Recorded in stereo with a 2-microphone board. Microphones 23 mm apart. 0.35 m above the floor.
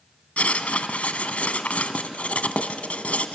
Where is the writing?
75° left (ahead or behind), 1.2 m.